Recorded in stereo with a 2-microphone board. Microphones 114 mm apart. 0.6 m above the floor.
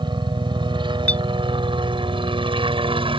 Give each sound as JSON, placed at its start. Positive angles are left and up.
{"t": 0.0, "sound": "a helicopter", "side_deg": -45}
{"t": 1.1, "sound": "a clink", "side_deg": 15}